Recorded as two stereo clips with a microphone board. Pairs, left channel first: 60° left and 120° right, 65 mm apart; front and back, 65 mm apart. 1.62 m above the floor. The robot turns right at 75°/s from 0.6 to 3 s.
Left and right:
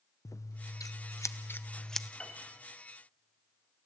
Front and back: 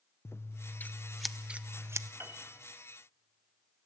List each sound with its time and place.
0.2 s scissors: 40° left, 0.8 m; by 2.1 s 155° left, 0.8 m
2.2 s a piano: 135° left, 3 m; by 2.5 s 160° left, 3 m